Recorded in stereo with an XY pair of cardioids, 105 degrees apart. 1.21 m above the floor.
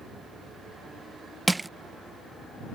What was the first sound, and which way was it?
Crushing, 15° right.